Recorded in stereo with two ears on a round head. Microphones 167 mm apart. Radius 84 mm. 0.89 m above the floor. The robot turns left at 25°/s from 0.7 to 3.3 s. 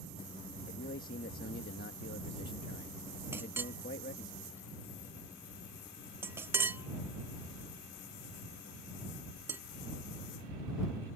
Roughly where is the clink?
Centre.